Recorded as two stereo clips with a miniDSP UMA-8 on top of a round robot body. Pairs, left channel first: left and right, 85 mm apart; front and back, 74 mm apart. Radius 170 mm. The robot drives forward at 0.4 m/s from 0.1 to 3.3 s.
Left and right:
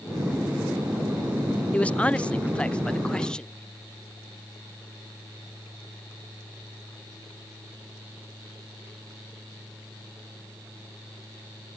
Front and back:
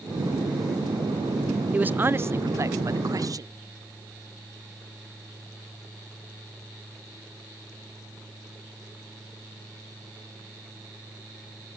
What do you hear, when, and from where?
1.7 s a man speaking: 145° left; by 3.5 s 170° left